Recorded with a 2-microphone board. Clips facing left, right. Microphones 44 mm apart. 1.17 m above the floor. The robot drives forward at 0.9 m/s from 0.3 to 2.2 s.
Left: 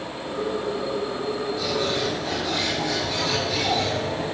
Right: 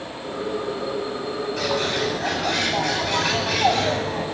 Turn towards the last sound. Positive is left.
turn(degrees=-75)  # may be behind; listen again after turning